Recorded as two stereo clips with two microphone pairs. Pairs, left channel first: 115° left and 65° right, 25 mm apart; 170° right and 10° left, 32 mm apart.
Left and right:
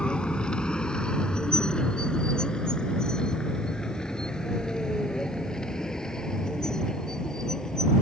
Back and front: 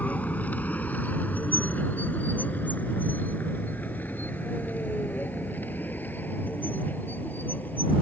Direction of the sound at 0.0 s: 155° left.